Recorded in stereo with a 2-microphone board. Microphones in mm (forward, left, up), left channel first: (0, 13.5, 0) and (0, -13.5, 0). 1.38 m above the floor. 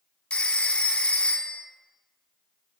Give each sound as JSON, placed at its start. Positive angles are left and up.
{"t": 0.3, "sound": "a phone ringing", "side_deg": 45, "distance_m": 0.8}